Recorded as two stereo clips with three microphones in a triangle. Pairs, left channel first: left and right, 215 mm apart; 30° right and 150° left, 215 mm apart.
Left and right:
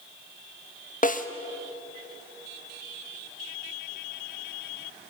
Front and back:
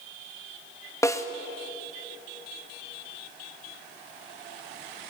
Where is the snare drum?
45° left, 1.5 m.